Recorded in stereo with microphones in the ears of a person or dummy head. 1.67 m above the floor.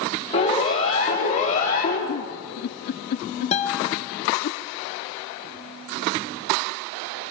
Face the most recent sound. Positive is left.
turn(degrees=30)  # may be behind; listen again after turning